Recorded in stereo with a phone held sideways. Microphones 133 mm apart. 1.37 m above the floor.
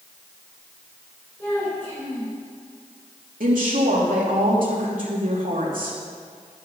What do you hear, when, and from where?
1.4 s a child speaking: 15° left (ahead or behind), 5 m
3.4 s a woman speaking: 85° right, 3 m